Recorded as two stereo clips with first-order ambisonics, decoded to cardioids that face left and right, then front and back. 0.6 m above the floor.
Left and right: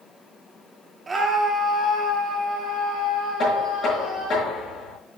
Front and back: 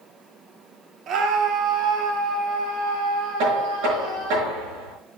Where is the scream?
155° right, 0.8 m; by 4.4 s straight behind, 5 m.